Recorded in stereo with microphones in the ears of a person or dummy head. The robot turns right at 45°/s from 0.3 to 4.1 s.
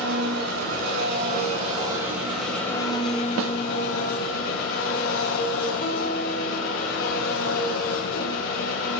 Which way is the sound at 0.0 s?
90° right.